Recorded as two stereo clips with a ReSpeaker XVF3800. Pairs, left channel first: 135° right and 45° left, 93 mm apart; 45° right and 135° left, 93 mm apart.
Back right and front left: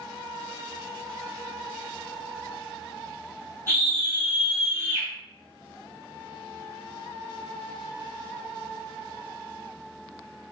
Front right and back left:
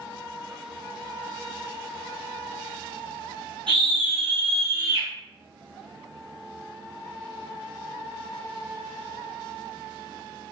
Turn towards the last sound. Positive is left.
turn(degrees=155)